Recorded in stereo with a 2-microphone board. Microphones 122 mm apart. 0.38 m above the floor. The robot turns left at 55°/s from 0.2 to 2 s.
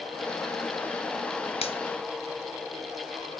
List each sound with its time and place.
1.6 s a finger snap: 55° left (ahead or behind), 2.5 m; by 1.8 s 50° left (ahead or behind), 2.5 m